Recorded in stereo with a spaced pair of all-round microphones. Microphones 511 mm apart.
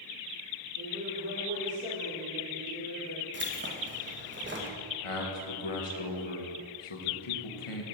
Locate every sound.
0.8 s a woman speaking: 30° right (ahead or behind), 3.5 m; by 3.2 s 20° left (ahead or behind), 2.5 m
3.3 s keys jangling: 20° right (ahead or behind), 0.9 m
5.0 s a man speaking: 75° left (ahead or behind), 1.2 m